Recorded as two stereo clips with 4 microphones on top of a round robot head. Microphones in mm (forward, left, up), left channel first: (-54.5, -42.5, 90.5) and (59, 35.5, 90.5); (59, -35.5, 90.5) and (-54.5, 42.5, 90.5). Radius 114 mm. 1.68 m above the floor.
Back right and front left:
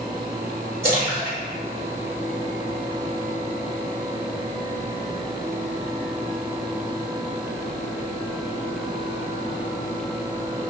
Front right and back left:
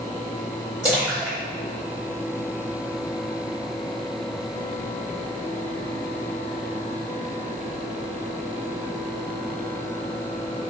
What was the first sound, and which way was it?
A splash, 75° left.